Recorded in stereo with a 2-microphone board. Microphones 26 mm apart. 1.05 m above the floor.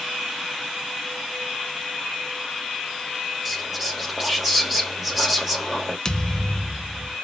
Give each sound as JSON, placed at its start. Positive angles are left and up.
{"t": 3.5, "sound": "whispering", "side_deg": -5, "distance_m": 1.7}
{"t": 6.0, "sound": "a thud", "side_deg": 30, "distance_m": 0.5}